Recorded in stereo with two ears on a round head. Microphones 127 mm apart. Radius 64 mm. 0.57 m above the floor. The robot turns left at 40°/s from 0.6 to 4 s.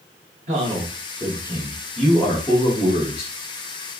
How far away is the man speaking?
About 1.7 m.